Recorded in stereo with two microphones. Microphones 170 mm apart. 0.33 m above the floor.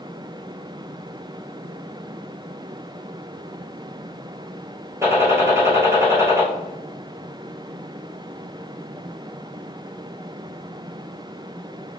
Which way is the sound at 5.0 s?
15° right (ahead or behind).